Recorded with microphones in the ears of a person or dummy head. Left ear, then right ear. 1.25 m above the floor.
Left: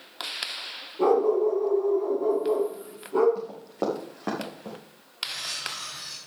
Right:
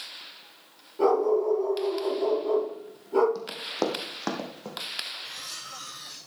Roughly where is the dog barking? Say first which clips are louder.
Left 1 dB; right.